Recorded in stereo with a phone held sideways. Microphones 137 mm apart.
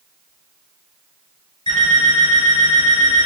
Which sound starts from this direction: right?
An alarm clock, at 1.7 s.